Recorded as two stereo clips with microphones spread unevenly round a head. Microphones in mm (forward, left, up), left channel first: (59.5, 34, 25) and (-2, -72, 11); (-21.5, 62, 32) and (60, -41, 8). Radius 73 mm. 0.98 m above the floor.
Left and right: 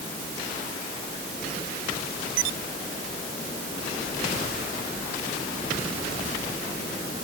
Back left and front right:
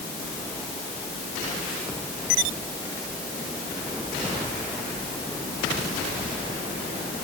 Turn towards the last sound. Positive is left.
No sound to turn to.